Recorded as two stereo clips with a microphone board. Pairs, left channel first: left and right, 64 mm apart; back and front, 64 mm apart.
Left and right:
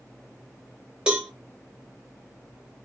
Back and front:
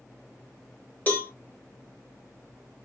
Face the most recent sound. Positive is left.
turn(degrees=-150)